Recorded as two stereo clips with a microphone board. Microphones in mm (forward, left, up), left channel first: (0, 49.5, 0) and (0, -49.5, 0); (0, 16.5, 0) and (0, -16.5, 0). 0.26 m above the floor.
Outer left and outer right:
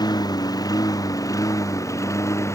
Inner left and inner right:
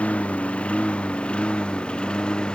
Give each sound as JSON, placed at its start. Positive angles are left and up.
{"t": 0.0, "sound": "a lawn mower", "side_deg": 40}